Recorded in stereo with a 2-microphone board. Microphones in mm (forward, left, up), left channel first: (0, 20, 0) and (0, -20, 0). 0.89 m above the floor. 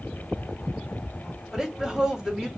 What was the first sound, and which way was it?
A woman speaking, 15° right (ahead or behind).